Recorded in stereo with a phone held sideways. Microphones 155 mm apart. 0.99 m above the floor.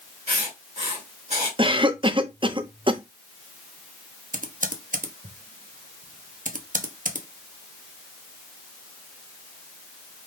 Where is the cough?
30° right (ahead or behind), 0.6 m.